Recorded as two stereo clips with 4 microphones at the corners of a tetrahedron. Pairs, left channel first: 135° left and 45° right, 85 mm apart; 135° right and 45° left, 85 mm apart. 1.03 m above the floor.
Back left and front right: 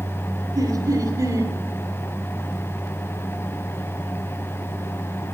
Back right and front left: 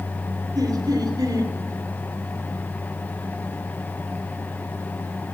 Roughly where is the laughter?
Ahead.